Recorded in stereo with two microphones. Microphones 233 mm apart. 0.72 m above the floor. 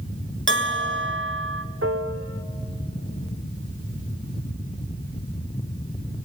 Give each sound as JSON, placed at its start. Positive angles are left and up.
{"t": 0.5, "sound": "a bell", "side_deg": -55, "distance_m": 2.0}
{"t": 1.8, "sound": "a piano", "side_deg": -65, "distance_m": 1.3}